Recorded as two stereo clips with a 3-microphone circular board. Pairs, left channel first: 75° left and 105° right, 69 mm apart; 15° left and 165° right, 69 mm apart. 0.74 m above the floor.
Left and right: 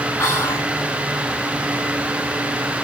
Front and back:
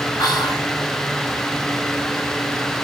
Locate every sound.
0.2 s whispering: 25° left, 5 m